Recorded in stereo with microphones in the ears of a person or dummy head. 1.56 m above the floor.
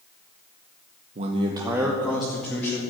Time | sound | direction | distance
1.1 | a man speaking | 45° right (ahead or behind) | 0.9 m